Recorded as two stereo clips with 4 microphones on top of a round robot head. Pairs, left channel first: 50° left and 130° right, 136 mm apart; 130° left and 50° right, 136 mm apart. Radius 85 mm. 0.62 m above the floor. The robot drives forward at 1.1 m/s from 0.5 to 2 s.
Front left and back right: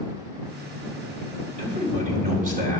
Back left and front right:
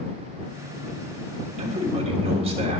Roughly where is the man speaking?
Right.